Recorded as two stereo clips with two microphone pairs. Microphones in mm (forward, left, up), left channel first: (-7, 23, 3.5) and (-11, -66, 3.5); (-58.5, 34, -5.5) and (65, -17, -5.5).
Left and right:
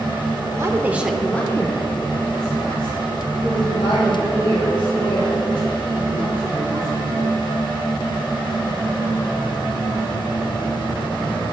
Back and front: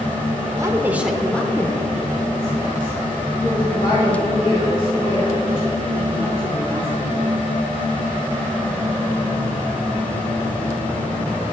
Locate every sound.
0.6 s a woman speaking: 70° right, 0.9 m; by 7.2 s 110° left, 5.5 m